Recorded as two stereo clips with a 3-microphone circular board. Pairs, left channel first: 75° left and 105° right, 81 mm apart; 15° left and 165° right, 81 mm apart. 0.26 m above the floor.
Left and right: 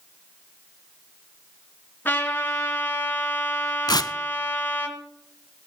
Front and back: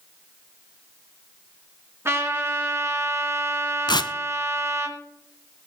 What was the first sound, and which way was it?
A trumpet, 140° left.